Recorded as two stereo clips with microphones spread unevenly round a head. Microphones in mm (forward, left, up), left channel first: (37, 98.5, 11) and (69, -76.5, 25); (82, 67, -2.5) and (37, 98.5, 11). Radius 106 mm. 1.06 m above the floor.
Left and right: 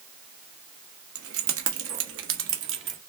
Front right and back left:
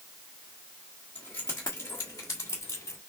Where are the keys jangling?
100° right, 1.5 m; by 3.0 s 70° right, 1.9 m.